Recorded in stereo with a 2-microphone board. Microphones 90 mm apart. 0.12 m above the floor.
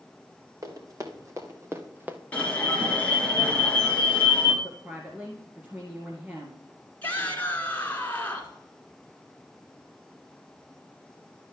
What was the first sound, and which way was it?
Running footsteps, 40° right (ahead or behind).